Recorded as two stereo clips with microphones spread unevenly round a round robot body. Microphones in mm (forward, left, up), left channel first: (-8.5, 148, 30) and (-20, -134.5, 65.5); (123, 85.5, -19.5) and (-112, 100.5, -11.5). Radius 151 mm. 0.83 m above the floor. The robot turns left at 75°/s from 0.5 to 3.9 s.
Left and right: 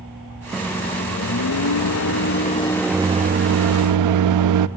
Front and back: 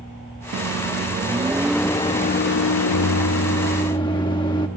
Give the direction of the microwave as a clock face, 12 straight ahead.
6 o'clock.